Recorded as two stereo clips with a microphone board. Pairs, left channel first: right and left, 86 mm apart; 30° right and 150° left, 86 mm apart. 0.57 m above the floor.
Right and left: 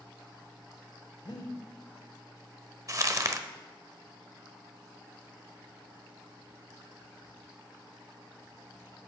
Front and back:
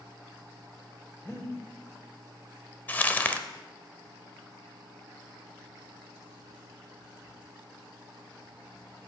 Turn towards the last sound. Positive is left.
turn(degrees=40)